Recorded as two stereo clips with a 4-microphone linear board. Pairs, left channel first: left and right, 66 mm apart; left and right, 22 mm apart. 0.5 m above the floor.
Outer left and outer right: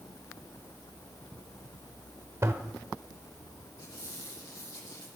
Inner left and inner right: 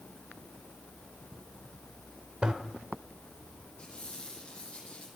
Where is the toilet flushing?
45° right (ahead or behind), 1.3 m.